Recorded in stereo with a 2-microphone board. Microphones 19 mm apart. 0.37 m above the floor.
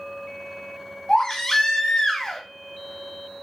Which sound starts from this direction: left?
A baby crying, at 1.1 s.